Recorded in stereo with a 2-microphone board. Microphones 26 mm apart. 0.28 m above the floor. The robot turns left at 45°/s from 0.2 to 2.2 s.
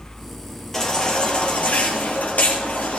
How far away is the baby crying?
About 3 m.